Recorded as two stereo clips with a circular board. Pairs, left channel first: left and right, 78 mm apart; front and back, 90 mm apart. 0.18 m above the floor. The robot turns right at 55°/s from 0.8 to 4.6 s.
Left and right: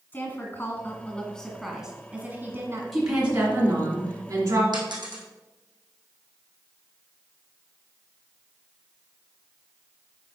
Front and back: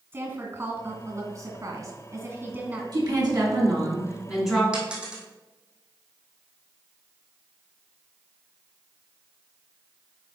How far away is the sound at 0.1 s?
About 1.8 m.